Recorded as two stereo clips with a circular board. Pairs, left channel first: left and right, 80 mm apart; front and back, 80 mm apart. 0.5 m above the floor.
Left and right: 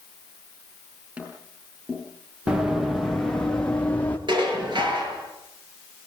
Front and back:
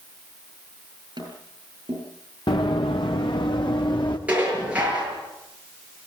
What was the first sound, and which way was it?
Tapping, 160° right.